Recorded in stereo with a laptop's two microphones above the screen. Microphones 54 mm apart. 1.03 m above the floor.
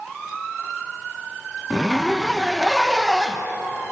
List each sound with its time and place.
1.7 s a zipper: centre (ahead or behind), 1.0 m